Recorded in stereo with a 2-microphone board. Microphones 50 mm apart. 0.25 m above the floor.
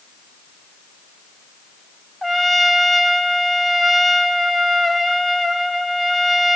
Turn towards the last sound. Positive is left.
turn(degrees=0)  # may be behind; listen again after turning